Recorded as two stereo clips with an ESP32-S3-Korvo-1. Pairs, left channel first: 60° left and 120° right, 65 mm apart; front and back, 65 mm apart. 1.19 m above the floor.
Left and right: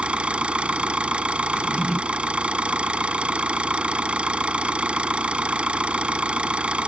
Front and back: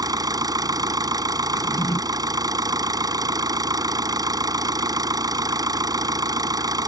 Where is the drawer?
20° right.